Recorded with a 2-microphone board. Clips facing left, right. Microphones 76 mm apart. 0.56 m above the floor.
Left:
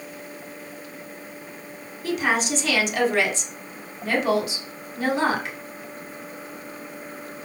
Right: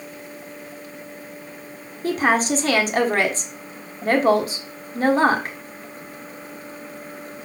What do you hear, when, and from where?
2.0 s a woman speaking: 40° right (ahead or behind), 1.5 m